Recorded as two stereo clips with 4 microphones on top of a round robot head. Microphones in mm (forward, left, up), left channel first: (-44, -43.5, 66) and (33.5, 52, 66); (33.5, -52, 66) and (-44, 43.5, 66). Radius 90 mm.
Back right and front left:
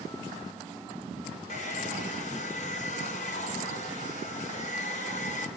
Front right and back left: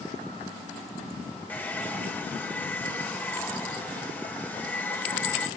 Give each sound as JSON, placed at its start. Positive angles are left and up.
{"t": 1.5, "sound": "a hair dryer", "azimuth_deg": -125, "distance_m": 3.0}